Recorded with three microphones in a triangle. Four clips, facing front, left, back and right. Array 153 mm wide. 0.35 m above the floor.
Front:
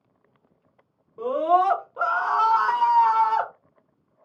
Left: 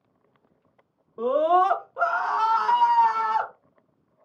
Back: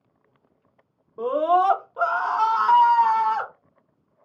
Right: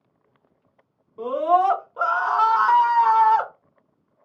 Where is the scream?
140° left, 0.9 m; by 3.5 s 60° right, 1.2 m.